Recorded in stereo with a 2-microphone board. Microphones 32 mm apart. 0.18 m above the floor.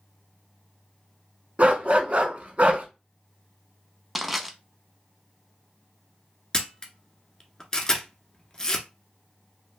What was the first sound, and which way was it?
A dog barking, 50° right (ahead or behind).